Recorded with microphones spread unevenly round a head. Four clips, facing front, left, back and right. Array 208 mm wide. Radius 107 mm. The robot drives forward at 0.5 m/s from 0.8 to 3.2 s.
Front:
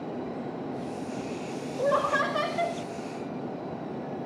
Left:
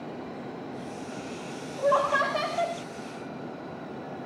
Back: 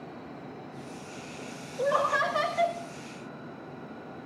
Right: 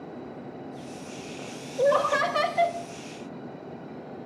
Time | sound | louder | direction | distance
1.8 | laughter | right 2 dB, front 1 dB | 85° right | 2.0 m